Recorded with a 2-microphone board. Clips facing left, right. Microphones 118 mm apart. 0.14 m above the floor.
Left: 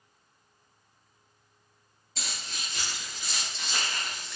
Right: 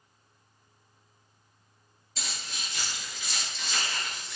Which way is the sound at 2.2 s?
45° left (ahead or behind).